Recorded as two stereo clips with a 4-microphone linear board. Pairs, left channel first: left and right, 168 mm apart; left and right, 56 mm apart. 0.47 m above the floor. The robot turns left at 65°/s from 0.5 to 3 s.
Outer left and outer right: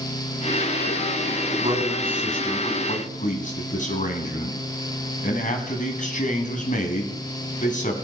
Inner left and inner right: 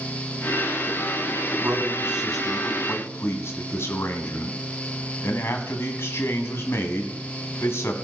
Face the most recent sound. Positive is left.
turn(degrees=130)